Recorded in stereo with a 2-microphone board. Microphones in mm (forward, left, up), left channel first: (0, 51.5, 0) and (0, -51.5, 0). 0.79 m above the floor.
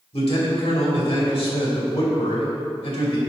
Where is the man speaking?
70° left (ahead or behind), 2.5 m.